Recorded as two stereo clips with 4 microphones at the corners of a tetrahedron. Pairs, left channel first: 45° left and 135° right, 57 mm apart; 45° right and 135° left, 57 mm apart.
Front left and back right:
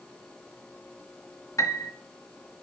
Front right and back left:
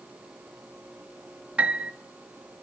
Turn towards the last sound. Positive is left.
turn(degrees=65)